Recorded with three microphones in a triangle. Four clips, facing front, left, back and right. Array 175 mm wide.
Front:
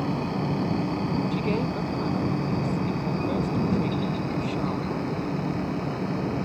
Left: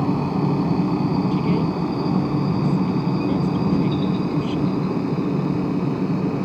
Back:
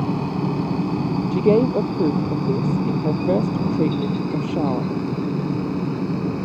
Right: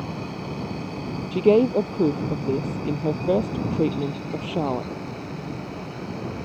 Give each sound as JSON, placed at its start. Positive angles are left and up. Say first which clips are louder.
{"t": 0.0, "sound": "a helicopter", "louder": "left 11 dB, back 4 dB", "azimuth_deg": 115}
{"t": 1.3, "sound": "a woman speaking", "louder": "right 4 dB, back 10 dB", "azimuth_deg": -135}